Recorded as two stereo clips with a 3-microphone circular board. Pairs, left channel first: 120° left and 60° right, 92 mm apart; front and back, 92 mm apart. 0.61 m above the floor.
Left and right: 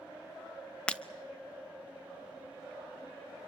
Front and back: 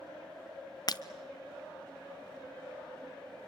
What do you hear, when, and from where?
0.9 s breaking glass: 40° left, 0.9 m